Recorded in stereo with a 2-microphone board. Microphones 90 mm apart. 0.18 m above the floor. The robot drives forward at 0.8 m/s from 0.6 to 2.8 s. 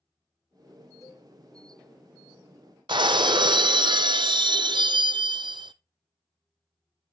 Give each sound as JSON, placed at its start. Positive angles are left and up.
{"t": 1.0, "sound": "a cowbell", "side_deg": 40, "distance_m": 1.1}
{"t": 2.9, "sound": "breaking glass", "side_deg": -65, "distance_m": 0.5}